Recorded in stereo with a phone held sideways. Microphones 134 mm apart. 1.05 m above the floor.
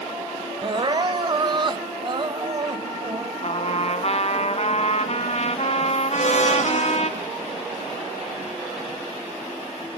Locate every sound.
0.6 s crying: 35° right (ahead or behind), 1.0 m
3.4 s a trumpet: 50° left (ahead or behind), 1.4 m
6.1 s a blender: 60° left (ahead or behind), 4.5 m